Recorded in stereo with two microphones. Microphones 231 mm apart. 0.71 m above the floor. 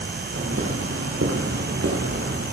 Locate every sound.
0.3 s footsteps: 75° right (ahead or behind), 10 m; by 2.4 s 70° right (ahead or behind), 10.5 m